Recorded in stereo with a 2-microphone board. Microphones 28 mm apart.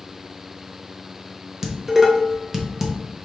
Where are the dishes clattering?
10° right (ahead or behind), 0.8 m.